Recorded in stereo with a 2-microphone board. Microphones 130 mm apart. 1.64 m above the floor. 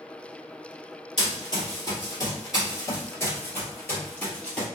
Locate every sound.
1.2 s running footsteps: 30° left (ahead or behind), 2.0 m; by 4.7 s 10° left (ahead or behind), 1.9 m